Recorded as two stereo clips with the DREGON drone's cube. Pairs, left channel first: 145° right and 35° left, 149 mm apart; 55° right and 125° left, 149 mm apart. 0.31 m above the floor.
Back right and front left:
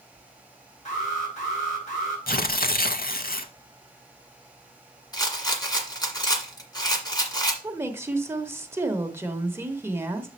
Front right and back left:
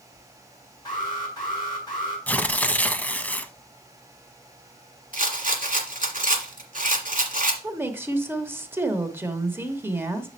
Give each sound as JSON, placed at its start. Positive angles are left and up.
{"t": 0.8, "sound": "an alarm", "azimuth_deg": -115, "distance_m": 5.5}
{"t": 2.3, "sound": "tearing paper", "azimuth_deg": -135, "distance_m": 0.5}
{"t": 5.1, "sound": "a rattle", "azimuth_deg": 150, "distance_m": 1.6}
{"t": 7.6, "sound": "a woman speaking", "azimuth_deg": 75, "distance_m": 0.9}